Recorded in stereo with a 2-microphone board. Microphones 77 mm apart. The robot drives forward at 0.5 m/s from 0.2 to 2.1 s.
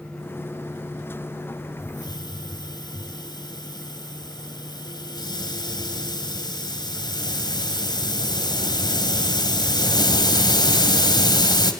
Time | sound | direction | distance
1.8 | a hiss | 65° left (ahead or behind) | 2.5 m